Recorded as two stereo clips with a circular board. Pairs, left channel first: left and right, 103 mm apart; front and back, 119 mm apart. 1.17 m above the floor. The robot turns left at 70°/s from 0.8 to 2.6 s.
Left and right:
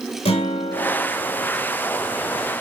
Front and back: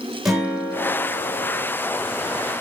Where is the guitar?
95° left, 3.5 m; by 1.7 s 30° left, 3.5 m.